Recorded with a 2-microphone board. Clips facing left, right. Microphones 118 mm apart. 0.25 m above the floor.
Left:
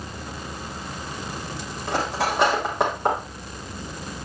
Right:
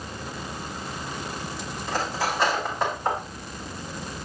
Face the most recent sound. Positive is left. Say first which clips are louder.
# left 3 dB
turn(degrees=70)  # may be behind; listen again after turning